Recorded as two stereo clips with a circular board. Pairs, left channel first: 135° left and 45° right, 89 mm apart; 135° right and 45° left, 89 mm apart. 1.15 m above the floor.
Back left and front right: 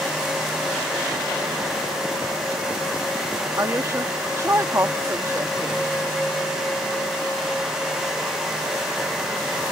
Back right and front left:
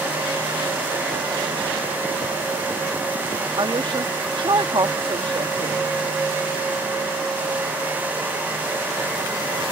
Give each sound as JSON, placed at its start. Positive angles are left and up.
{"t": 3.6, "sound": "a woman speaking", "azimuth_deg": 15}